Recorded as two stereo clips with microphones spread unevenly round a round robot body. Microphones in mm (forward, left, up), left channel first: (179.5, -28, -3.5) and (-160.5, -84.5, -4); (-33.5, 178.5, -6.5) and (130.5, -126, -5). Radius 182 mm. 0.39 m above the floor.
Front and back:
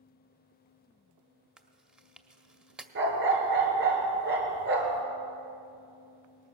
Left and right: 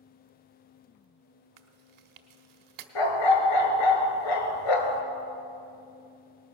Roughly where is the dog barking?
Behind left.